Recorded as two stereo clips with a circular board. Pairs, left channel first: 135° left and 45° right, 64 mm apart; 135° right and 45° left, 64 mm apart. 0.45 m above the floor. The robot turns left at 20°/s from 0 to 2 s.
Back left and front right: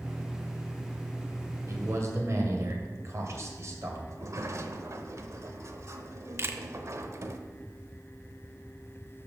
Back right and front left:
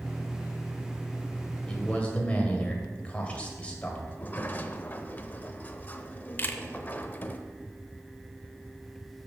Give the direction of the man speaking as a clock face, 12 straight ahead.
2 o'clock.